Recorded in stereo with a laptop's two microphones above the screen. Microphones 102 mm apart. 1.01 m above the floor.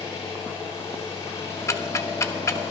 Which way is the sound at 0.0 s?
30° left (ahead or behind).